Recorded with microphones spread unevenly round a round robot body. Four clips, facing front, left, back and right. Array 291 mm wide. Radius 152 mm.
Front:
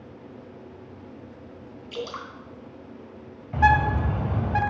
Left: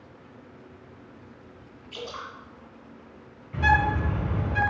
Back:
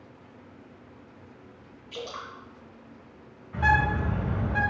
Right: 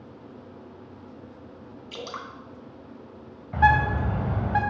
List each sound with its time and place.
1.9 s dripping: 75° right, 2.5 m
3.5 s a bird: 40° right, 3 m